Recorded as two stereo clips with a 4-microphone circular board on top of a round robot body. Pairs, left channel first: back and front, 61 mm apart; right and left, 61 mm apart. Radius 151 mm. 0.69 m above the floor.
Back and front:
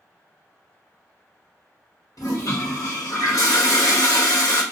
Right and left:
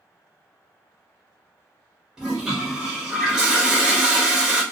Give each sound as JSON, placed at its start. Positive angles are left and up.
{"t": 2.2, "sound": "a toilet flushing", "azimuth_deg": 165, "distance_m": 1.2}